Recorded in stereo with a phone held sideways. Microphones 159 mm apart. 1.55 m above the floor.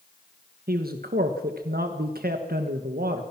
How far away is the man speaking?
About 1.4 m.